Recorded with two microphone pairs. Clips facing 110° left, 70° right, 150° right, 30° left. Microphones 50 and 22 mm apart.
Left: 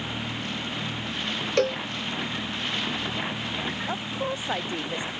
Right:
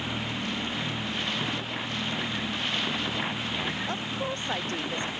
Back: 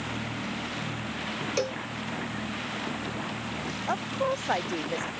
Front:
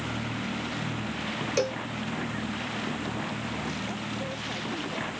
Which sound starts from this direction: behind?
A woman speaking, at 3.9 s.